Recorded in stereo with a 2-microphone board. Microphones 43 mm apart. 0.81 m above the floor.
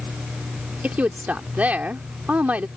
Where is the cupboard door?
No cupboard door in this recording.